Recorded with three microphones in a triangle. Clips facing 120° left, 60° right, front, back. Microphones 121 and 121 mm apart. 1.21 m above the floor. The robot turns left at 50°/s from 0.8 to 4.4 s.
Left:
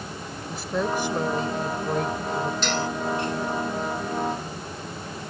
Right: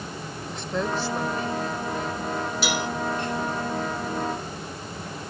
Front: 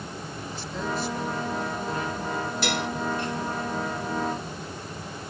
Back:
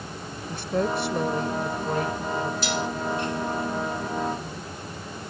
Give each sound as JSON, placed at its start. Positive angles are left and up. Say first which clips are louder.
{"t": 0.5, "sound": "a woman speaking", "louder": "left 2 dB, back 7 dB", "azimuth_deg": -155}
{"t": 2.6, "sound": "dishes clattering", "louder": "left 1 dB, even", "azimuth_deg": 20}